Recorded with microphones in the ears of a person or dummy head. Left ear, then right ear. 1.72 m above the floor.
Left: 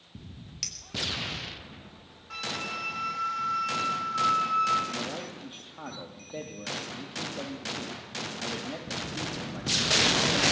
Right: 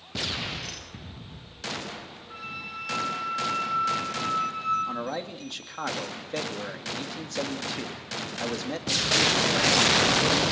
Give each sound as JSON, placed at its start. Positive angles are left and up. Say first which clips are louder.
{"t": 0.6, "sound": "a clink", "louder": "left 3 dB", "side_deg": 50, "distance_m": 6.0}
{"t": 2.3, "sound": "a flute", "louder": "left 4 dB", "side_deg": 75, "distance_m": 5.0}
{"t": 4.9, "sound": "a man speaking", "louder": "right 3 dB", "side_deg": -80, "distance_m": 3.0}